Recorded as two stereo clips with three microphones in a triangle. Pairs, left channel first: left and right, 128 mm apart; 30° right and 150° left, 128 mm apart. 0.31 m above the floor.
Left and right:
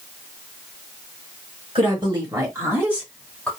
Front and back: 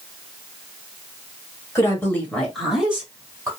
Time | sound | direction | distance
1.8 | a woman speaking | 85° right | 1.5 m